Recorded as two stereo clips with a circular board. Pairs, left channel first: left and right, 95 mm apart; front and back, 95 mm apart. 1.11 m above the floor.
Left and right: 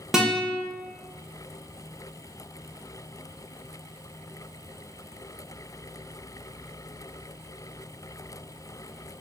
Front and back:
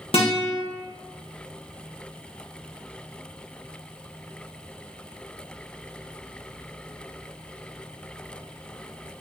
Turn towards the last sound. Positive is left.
turn(degrees=-5)